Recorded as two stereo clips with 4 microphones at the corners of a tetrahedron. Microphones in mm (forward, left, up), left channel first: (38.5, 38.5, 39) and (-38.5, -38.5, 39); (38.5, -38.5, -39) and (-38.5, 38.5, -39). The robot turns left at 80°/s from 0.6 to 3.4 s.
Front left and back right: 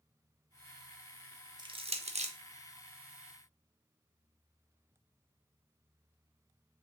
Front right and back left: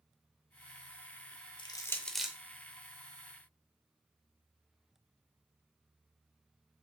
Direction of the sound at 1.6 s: 85° right.